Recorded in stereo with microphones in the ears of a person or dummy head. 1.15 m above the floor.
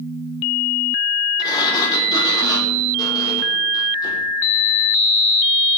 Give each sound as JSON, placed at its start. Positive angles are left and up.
{"t": 1.4, "sound": "a sliding door", "side_deg": 25, "distance_m": 4.0}